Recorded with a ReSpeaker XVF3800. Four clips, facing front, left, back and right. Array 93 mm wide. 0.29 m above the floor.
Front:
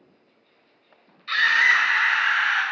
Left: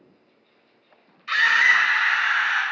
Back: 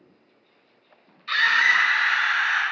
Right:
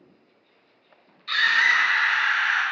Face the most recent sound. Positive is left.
turn(degrees=15)